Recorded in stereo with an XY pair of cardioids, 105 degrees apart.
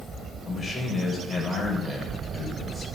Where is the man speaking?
35° left, 7.5 m.